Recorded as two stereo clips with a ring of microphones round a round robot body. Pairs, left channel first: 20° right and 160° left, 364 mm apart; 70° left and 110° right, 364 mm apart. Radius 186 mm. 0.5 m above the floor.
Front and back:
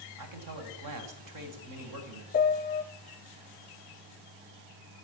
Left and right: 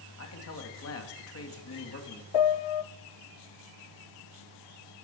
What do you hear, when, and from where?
0.2 s a man speaking: 120° left, 3 m
2.3 s a piano: 45° left, 0.5 m